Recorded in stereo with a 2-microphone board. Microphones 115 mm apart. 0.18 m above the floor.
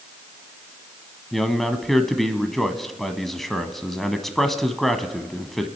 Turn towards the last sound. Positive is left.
turn(degrees=0)  # may be behind; listen again after turning